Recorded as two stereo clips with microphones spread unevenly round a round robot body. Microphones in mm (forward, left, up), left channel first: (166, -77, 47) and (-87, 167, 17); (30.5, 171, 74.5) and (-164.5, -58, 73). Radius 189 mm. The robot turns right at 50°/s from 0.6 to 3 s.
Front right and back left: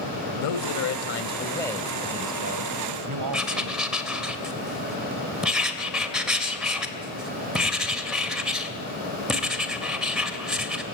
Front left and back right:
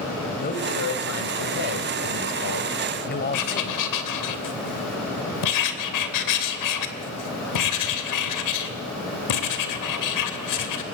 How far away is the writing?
About 2.5 m.